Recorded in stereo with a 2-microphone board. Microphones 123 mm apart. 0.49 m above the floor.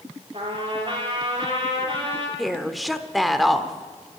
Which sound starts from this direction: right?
A trumpet, at 0.3 s.